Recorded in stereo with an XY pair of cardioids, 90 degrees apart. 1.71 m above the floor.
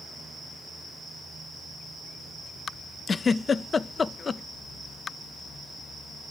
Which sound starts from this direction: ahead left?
A giggle, at 3.1 s.